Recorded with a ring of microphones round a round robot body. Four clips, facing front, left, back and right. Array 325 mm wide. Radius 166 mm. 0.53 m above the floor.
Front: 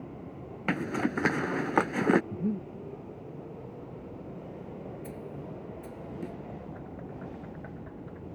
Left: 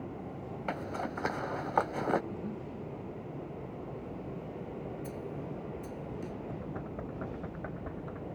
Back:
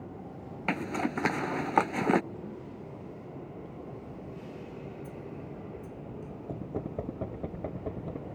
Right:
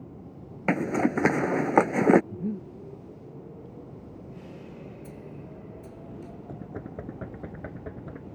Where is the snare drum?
5° left.